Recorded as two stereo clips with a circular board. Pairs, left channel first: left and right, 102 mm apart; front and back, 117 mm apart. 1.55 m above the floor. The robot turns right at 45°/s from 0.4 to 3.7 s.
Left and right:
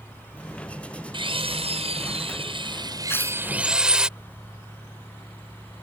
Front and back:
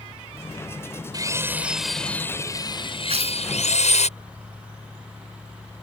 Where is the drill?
125° right; by 4.1 s 10° right.